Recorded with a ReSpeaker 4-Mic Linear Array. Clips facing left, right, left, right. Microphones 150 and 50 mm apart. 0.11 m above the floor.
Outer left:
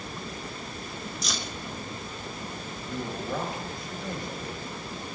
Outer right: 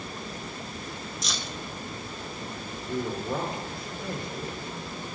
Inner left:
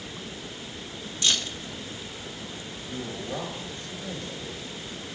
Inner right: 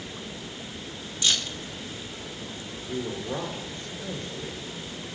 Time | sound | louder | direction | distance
1.2 | keys jangling | outer left 1 dB, even | centre (ahead or behind) | 0.8 m
2.9 | a man speaking | outer right 3 dB, inner right 3 dB | 30° right (ahead or behind) | 1.6 m